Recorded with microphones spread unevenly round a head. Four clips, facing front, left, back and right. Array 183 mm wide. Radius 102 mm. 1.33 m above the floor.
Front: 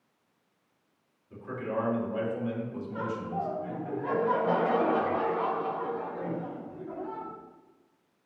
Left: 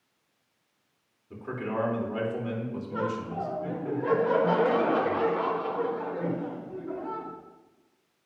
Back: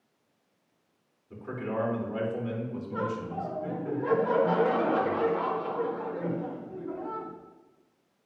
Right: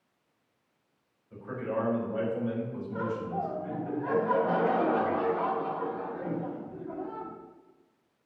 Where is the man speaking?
90° left, 4 m.